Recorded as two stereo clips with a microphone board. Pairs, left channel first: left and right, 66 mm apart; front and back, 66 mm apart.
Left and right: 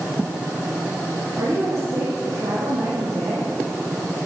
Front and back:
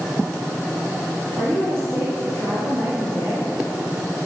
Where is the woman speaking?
130° right, 5.5 m; by 3.5 s 125° right, 7 m.